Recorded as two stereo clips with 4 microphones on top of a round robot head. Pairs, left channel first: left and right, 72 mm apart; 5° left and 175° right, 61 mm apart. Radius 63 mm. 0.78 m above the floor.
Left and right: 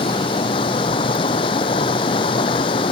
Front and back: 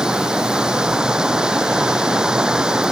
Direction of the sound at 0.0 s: 105° left.